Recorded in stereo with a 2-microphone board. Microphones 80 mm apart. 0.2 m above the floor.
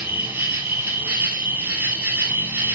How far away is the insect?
About 1.9 m.